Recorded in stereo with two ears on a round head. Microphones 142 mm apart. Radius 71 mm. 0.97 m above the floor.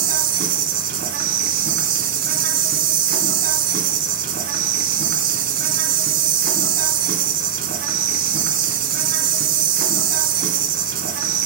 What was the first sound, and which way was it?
An insect, 55° right (ahead or behind).